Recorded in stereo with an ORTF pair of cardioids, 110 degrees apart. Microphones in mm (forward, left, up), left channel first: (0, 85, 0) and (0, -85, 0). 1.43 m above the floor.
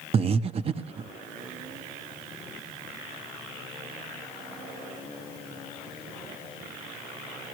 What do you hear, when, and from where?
0.1 s breathing: 35° right, 1.0 m